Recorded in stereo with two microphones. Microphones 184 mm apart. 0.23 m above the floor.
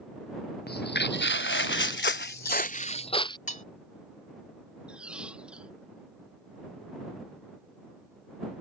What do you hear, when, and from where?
0.7 s footsteps: 60° left (ahead or behind); by 3.4 s 20° left (ahead or behind)
3.5 s cutlery clinking: 40° left (ahead or behind)
4.9 s a squeak: 5° right (ahead or behind)